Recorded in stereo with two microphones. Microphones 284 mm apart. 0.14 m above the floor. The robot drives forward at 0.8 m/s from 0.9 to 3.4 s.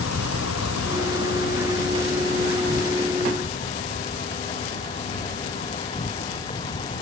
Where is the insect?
55° left (ahead or behind); by 7.0 s 25° left (ahead or behind).